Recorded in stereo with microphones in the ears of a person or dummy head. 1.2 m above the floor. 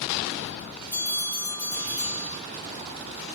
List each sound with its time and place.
0.9 s a bell: 40° left (ahead or behind), 1.5 m